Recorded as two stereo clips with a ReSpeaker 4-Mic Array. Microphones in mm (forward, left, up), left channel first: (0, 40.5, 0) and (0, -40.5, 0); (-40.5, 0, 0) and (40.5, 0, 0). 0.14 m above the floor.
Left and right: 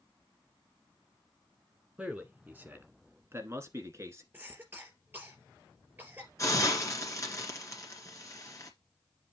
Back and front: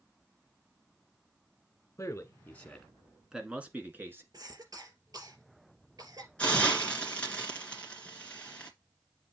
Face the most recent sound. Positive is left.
turn(degrees=110)